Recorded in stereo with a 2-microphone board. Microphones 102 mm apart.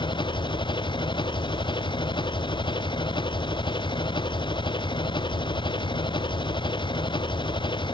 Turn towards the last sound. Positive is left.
turn(degrees=50)  # may be behind; listen again after turning